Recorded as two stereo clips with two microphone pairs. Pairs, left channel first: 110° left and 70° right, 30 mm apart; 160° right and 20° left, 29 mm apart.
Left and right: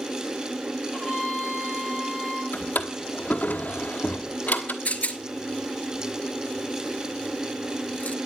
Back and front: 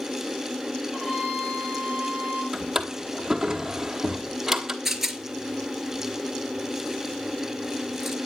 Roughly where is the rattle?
Left.